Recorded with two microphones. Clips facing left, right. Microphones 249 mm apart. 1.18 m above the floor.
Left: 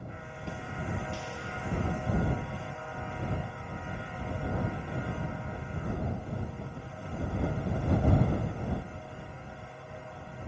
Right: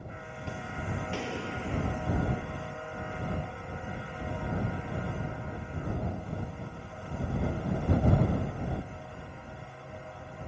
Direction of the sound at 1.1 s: 70° right (ahead or behind).